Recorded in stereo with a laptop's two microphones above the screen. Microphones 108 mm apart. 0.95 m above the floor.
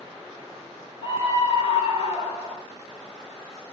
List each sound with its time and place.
1.0 s a scream: 50° left (ahead or behind), 3.5 m